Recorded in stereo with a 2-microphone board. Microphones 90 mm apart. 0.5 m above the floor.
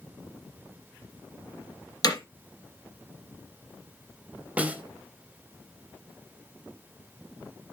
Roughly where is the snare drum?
Centre.